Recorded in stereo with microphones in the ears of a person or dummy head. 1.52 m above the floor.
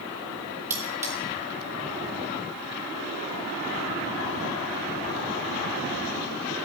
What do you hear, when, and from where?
0.7 s cutlery clinking: 10° right (ahead or behind), 1.9 m